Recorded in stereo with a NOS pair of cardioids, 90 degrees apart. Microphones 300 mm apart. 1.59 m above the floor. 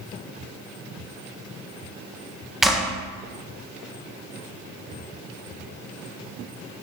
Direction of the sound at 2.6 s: Straight ahead.